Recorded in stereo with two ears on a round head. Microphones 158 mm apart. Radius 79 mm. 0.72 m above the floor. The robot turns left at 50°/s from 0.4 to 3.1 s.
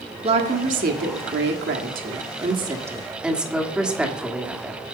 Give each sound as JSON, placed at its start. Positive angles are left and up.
{"t": 0.2, "sound": "a woman speaking", "azimuth_deg": -40, "distance_m": 1.6}